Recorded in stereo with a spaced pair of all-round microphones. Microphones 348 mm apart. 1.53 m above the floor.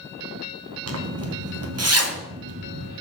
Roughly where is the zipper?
Right.